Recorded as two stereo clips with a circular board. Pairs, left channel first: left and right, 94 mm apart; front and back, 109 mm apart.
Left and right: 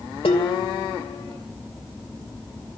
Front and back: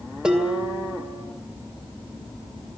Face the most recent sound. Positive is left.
turn(degrees=100)